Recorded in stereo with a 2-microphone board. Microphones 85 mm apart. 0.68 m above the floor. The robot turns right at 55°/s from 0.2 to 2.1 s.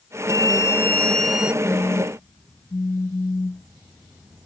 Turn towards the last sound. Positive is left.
turn(degrees=40)  # may be behind; listen again after turning